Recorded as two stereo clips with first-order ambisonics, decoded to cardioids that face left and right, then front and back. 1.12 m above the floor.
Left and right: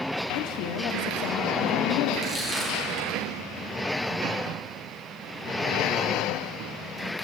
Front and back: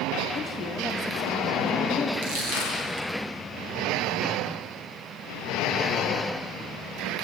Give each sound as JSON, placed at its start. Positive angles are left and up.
{"t": 0.3, "sound": "a woman speaking", "azimuth_deg": 80, "distance_m": 1.6}
{"t": 2.2, "sound": "crushing", "azimuth_deg": 180, "distance_m": 4.0}